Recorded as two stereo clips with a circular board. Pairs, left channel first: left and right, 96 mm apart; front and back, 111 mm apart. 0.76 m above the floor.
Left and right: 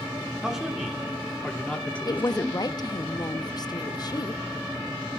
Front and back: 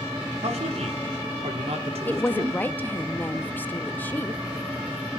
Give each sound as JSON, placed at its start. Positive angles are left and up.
{"t": 0.4, "sound": "a man speaking", "azimuth_deg": -175, "distance_m": 2.0}
{"t": 2.0, "sound": "a woman speaking", "azimuth_deg": 70, "distance_m": 0.8}